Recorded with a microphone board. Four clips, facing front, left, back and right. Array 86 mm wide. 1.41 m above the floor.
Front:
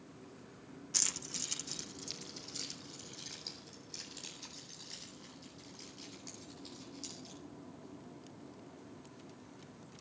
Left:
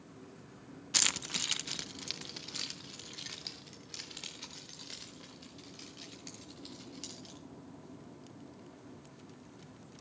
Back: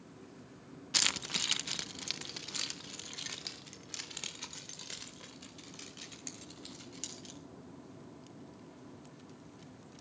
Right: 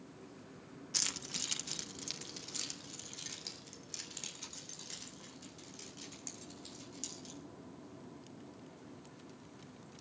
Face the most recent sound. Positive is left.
turn(degrees=165)